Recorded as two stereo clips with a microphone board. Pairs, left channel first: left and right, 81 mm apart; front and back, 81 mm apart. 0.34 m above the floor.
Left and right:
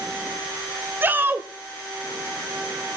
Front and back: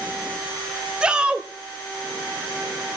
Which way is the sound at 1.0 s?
115° right.